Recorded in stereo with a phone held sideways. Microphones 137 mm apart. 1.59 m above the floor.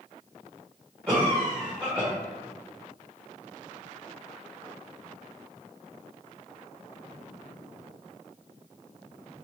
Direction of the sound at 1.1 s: 15° right (ahead or behind).